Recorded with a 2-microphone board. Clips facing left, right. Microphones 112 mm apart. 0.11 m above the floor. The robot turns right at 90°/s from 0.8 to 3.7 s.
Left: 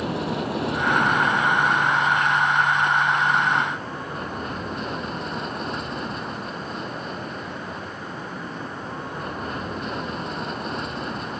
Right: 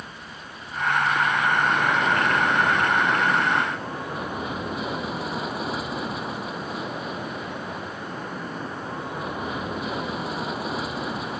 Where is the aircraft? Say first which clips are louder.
Left 15 dB; 95° left; by 11.4 s 5° right.